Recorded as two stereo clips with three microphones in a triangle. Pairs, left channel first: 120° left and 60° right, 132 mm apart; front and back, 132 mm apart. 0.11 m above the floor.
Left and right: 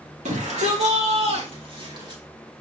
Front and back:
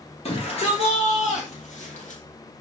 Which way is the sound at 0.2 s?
35° right.